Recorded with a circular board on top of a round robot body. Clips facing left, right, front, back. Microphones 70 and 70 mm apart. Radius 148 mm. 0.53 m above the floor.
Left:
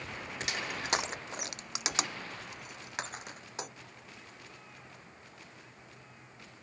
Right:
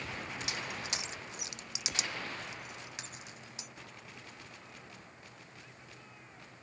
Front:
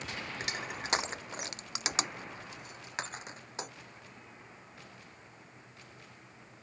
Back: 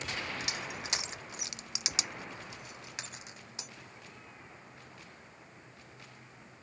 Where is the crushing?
50° left.